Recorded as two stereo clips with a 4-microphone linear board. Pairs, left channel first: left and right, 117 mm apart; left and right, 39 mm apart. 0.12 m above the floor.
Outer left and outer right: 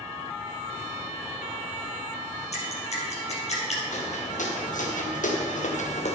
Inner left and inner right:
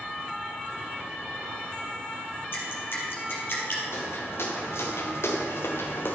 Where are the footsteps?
75° left (ahead or behind), 3 m; by 6.1 s 60° left (ahead or behind), 1.6 m.